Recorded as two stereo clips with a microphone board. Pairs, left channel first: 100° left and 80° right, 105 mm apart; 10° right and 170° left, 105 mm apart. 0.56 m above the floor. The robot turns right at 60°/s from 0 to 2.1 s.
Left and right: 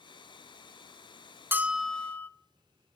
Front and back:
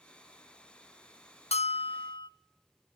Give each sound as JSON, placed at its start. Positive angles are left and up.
{"t": 1.5, "sound": "a bell", "azimuth_deg": -10, "distance_m": 0.6}